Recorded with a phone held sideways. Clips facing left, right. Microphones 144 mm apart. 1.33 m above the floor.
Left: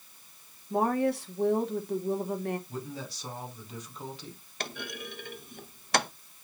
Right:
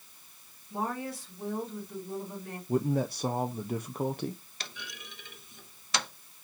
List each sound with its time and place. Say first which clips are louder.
0.7 s a woman speaking: left 8 dB; 65° left (ahead or behind), 2.5 m
2.7 s a man speaking: right 11 dB; 55° right (ahead or behind), 0.7 m
4.6 s a clunk: left 8 dB; 55° left (ahead or behind), 0.8 m